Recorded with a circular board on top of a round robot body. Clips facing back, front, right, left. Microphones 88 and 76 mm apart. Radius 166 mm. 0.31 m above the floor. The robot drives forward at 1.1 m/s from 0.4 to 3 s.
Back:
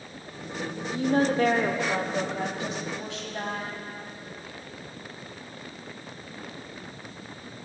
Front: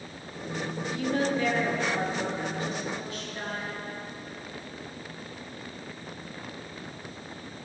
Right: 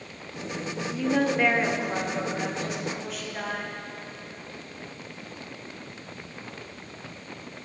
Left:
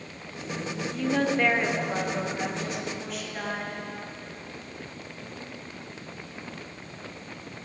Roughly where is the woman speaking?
Behind.